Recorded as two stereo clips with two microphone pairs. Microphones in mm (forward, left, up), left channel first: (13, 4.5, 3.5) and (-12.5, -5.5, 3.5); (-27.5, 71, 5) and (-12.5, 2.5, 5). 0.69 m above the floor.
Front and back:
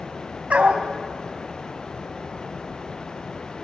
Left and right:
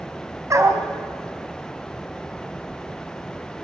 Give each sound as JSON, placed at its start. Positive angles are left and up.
{"t": 0.5, "sound": "a dog barking", "azimuth_deg": -120, "distance_m": 2.0}